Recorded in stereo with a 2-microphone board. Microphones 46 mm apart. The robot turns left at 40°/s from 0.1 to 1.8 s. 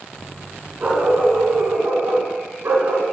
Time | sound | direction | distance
0.8 | a dog barking | 40° right | 1.3 m